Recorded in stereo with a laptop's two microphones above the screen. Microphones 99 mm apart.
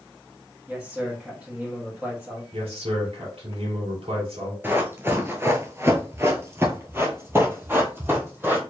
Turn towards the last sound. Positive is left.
turn(degrees=-20)  # may be behind; listen again after turning